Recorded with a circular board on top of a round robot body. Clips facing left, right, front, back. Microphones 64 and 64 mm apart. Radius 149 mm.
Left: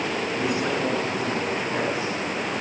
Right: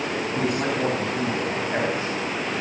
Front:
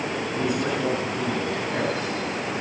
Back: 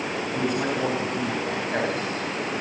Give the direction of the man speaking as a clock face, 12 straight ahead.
5 o'clock.